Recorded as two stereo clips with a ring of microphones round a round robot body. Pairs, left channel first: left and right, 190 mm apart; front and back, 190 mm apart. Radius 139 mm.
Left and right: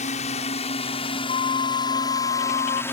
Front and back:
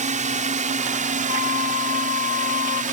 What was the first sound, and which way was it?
A drone, 140° left.